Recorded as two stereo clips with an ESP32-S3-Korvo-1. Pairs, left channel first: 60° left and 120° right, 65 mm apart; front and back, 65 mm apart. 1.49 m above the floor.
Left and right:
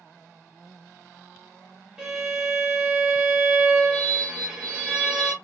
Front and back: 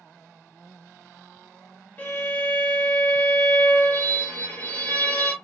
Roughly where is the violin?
Ahead right.